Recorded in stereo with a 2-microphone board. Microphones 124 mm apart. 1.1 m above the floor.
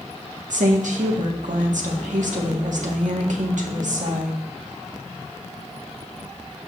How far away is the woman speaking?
About 1.6 m.